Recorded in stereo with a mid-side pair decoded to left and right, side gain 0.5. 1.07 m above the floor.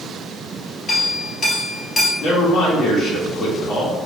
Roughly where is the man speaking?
Ahead left.